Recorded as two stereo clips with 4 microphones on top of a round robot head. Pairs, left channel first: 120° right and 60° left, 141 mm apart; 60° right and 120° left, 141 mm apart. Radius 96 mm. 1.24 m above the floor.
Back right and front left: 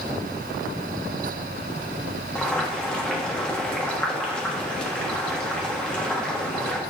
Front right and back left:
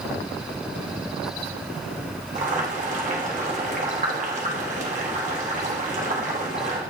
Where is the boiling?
155° left, 1.3 m.